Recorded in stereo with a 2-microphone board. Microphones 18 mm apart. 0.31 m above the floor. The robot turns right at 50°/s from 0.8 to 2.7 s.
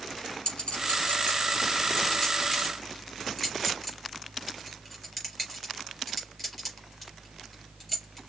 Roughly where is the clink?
Left.